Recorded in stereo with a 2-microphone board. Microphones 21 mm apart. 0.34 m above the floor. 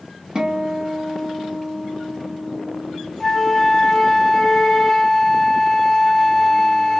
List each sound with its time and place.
0.3 s a guitar: 40° right (ahead or behind), 0.8 m
3.2 s a flute: 5° left (ahead or behind), 0.6 m